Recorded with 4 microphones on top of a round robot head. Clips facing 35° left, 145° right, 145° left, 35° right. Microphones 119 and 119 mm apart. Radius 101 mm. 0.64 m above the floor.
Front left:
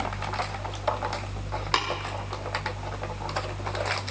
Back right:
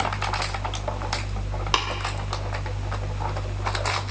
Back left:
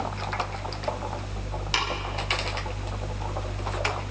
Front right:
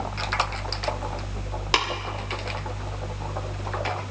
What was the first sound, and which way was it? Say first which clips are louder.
Tapping: back right 2 dB, front right 5 dB; 60° right.